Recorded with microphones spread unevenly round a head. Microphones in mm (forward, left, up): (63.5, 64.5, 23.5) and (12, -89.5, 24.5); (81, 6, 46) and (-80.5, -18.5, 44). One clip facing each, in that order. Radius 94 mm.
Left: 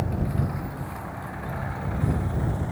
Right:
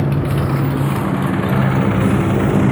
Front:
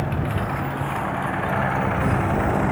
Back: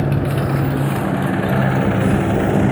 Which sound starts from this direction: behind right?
A motorcycle, at 0.0 s.